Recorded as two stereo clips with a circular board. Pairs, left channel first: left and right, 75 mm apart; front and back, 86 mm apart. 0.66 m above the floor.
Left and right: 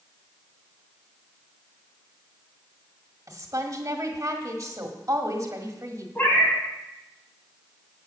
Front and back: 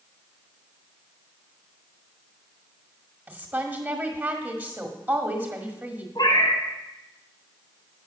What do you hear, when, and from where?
3.3 s a woman speaking: 120° right, 1.6 m
6.2 s a cat meowing: 25° left, 2.5 m